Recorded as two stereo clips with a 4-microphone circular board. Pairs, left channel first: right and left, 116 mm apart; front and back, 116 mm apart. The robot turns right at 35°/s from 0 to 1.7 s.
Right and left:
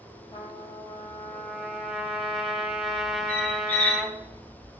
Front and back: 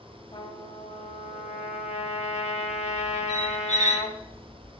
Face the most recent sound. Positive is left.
turn(degrees=-15)